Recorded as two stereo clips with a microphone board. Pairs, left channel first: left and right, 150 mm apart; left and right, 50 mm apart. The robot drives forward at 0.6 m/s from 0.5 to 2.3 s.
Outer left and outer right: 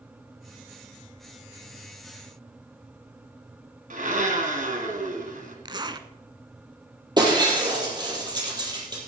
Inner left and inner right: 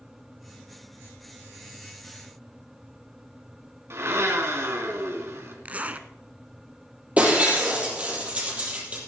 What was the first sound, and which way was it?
A blender, 60° right (ahead or behind).